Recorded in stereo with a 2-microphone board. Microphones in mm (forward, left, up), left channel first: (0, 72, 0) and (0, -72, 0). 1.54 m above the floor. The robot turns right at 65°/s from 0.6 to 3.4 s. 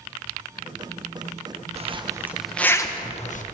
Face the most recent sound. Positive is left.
turn(degrees=60)  # may be behind; listen again after turning